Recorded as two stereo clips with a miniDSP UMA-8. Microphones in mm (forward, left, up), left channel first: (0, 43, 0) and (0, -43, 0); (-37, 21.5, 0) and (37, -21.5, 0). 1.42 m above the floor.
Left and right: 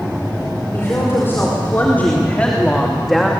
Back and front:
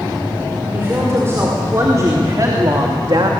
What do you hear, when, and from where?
0.7 s a woman speaking: 30° left, 5 m; by 3.3 s 5° right, 2 m